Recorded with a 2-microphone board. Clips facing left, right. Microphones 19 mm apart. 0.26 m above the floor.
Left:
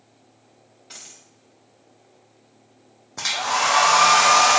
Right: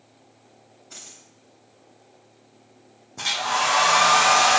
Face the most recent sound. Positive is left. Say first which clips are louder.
# left 1 dB
turn(degrees=40)  # may be behind; listen again after turning